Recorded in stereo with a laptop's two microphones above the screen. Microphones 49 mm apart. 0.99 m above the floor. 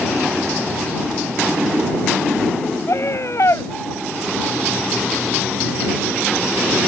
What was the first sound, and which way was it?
A scream, 60° left (ahead or behind).